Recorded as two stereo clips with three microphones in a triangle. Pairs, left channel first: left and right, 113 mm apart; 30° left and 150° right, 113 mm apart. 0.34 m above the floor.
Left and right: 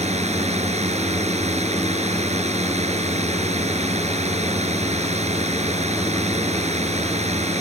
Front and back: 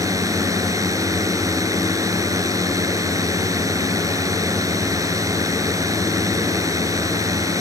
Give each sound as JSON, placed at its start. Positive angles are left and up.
{"t": 0.0, "sound": "a drone", "azimuth_deg": -90}